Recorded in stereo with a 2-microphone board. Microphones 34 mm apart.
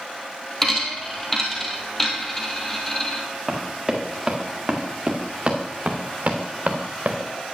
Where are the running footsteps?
5° right (ahead or behind), 2.5 m; by 7.3 s 55° right (ahead or behind), 2 m.